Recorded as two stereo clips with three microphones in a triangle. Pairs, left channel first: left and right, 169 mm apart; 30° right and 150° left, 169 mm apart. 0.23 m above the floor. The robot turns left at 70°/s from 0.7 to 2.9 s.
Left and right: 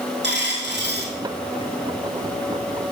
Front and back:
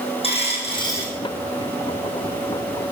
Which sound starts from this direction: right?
A dropped coin, at 0.2 s.